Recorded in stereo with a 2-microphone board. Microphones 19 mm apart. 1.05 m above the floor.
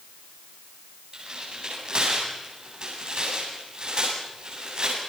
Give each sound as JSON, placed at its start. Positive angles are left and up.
{"t": 1.1, "sound": "tearing paper", "side_deg": -45, "distance_m": 9.0}